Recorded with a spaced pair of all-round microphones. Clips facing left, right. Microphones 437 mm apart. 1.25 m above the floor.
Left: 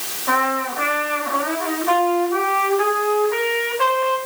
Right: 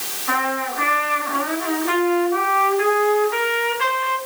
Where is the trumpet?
65° left (ahead or behind), 7 m.